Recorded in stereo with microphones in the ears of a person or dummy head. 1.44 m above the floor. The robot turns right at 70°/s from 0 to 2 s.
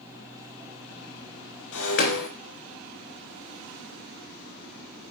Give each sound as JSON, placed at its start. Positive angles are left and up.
{"t": 1.7, "sound": "breaking glass", "side_deg": 75, "distance_m": 3.0}